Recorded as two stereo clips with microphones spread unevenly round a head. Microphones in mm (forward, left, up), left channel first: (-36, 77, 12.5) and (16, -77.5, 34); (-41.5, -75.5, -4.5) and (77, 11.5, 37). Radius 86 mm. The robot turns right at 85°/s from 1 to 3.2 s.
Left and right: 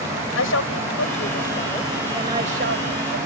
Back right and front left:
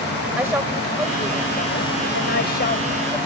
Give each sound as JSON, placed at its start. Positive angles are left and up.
{"t": 0.4, "sound": "a woman speaking", "azimuth_deg": 115}